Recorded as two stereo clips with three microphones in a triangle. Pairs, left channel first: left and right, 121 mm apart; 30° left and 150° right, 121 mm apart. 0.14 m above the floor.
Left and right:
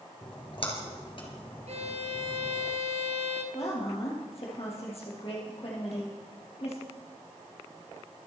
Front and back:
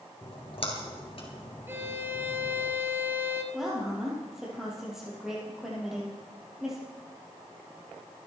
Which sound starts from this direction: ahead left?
A splash, at 0.2 s.